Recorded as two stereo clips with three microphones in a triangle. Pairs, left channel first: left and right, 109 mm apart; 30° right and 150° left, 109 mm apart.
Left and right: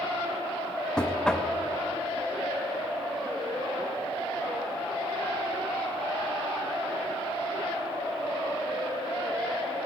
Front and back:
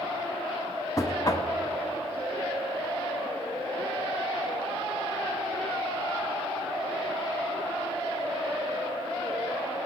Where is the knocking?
10° left, 1.0 m.